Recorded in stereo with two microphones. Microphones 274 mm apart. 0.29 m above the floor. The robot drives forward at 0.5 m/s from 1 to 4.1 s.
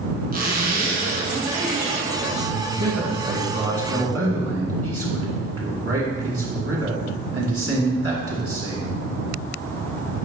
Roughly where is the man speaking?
Right.